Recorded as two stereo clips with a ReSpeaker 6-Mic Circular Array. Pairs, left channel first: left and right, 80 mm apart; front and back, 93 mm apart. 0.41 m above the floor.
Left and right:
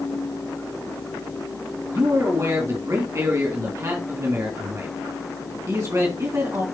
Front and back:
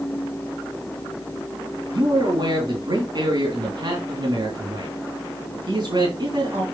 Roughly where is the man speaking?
Behind right.